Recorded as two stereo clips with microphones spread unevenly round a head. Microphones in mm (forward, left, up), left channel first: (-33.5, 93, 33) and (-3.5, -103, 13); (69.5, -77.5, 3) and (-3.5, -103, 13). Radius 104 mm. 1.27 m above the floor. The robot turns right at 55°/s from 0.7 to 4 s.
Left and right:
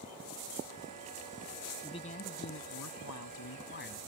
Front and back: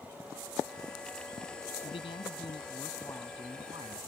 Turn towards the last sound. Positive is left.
turn(degrees=145)